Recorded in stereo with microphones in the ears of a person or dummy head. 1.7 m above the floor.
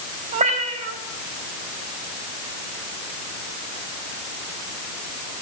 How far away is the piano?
No piano in this recording.